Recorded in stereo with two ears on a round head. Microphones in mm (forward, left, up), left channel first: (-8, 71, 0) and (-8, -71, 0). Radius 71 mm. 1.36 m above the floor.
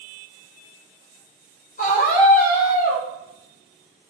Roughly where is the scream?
Left.